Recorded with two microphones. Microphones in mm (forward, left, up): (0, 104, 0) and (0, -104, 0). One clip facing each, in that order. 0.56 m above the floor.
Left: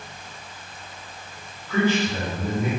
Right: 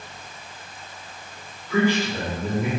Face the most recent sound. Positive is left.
turn(degrees=-15)  # may be behind; listen again after turning